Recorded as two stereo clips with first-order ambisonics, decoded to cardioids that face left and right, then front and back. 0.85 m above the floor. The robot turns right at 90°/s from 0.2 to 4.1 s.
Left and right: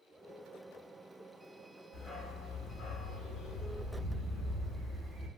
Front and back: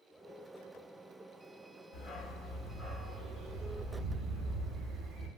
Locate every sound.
1.9 s a dog barking: 15° right, 0.8 m; by 5.3 s straight behind, 0.8 m